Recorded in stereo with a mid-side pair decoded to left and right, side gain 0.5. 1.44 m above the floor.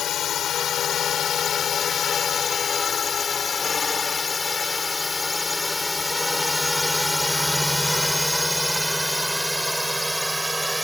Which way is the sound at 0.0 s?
55° left.